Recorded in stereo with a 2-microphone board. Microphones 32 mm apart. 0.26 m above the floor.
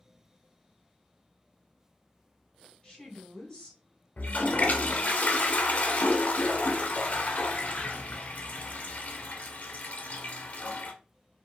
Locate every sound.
2.8 s a woman speaking: 35° left (ahead or behind), 2 m
4.2 s a toilet flushing: 55° left (ahead or behind), 0.6 m